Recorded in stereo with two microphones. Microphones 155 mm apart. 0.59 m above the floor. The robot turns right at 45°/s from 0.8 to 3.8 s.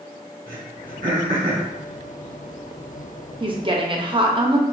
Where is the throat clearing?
80° right, 2 m; by 1.7 s 40° right (ahead or behind), 2 m.